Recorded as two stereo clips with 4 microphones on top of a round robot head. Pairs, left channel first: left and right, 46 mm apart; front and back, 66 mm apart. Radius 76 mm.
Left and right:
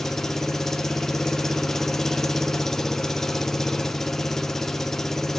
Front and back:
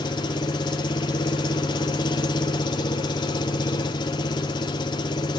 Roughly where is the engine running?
Ahead.